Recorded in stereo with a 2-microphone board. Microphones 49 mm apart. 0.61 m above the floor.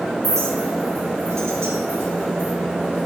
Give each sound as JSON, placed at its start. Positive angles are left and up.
{"t": 0.2, "sound": "a clink", "side_deg": -85, "distance_m": 2.5}